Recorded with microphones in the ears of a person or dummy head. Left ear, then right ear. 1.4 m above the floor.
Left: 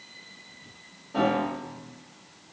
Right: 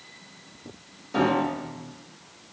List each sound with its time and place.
1.1 s a piano: 65° right (ahead or behind), 0.7 m